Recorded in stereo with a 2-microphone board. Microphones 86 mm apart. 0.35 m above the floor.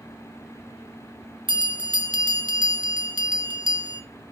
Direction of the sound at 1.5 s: 70° right (ahead or behind).